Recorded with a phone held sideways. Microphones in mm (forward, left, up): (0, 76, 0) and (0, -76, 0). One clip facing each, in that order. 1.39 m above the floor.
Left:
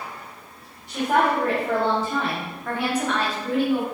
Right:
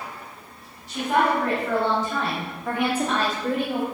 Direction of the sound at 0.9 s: 55° left (ahead or behind).